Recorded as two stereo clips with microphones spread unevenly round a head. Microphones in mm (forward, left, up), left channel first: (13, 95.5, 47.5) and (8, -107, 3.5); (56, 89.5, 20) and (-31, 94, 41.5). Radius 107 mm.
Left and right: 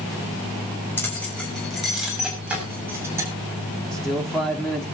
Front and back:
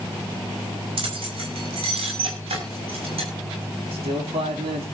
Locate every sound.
1.0 s keys jangling: 170° left, 5.5 m; by 3.3 s 170° right, 6.5 m
3.9 s a man speaking: straight behind, 3.5 m